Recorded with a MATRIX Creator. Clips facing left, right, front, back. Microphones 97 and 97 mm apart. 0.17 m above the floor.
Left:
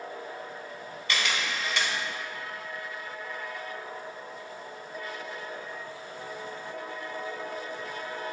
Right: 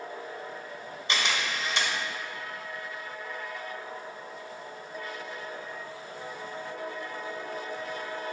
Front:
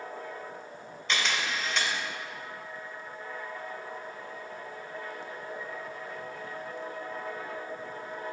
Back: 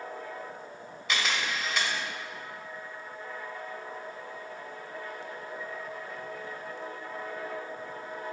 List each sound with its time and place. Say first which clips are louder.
1.1 s a camera shutter: even, even; 105° right, 1.3 m